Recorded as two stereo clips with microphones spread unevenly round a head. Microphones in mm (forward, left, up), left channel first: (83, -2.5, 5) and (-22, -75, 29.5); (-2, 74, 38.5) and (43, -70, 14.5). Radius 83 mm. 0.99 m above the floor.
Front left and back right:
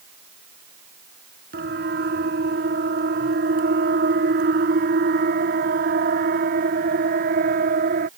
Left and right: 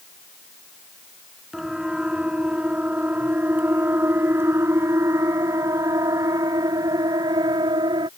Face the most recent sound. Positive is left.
turn(degrees=-140)